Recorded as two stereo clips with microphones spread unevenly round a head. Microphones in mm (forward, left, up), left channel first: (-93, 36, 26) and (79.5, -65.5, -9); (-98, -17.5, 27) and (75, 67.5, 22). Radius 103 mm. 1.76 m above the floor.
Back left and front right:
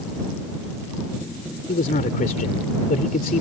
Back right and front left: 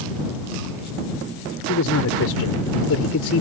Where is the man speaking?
160° right.